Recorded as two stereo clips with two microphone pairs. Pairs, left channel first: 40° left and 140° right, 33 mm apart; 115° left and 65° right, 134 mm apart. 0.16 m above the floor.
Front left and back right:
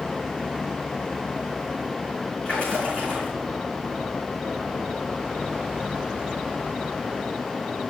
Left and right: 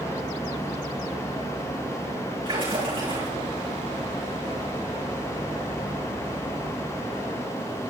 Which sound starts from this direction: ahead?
A splash, at 2.5 s.